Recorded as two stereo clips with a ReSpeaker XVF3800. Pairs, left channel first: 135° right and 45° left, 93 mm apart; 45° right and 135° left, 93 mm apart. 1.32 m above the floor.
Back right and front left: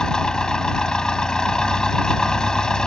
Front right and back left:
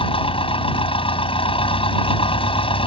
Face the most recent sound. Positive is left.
turn(degrees=-55)